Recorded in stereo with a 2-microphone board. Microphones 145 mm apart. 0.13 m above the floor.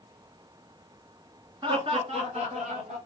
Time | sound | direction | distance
1.6 | laughter | 35° right (ahead or behind) | 1.3 m